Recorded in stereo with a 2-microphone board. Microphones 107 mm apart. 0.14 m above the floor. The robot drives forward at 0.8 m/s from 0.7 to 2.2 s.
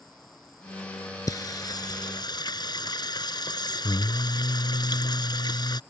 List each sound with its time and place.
0.0 s an insect: 5° left (ahead or behind)
1.3 s singing: 35° left (ahead or behind); by 5.8 s 40° left (ahead or behind)